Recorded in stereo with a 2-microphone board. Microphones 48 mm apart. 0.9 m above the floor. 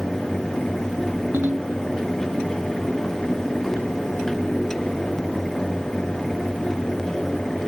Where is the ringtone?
55° right (ahead or behind).